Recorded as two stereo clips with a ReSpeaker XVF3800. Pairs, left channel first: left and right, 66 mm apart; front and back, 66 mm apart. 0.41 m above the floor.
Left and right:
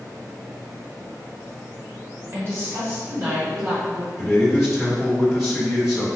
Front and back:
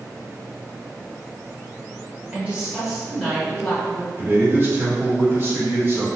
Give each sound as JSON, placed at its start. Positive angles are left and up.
{"t": 2.3, "sound": "a woman speaking", "azimuth_deg": -125, "distance_m": 1.1}
{"t": 4.2, "sound": "a man speaking", "azimuth_deg": -170, "distance_m": 1.3}